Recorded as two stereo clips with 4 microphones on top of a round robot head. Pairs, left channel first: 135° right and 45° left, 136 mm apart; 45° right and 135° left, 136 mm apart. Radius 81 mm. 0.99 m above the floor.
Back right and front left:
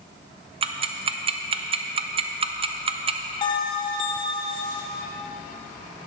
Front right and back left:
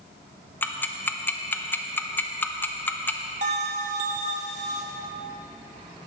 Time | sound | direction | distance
0.6 | ticking | 25° left | 0.7 m
3.4 | a bell | 170° left | 1.1 m